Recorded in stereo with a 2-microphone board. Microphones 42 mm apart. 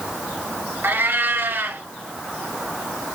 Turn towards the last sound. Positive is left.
turn(degrees=-60)  # may be behind; listen again after turning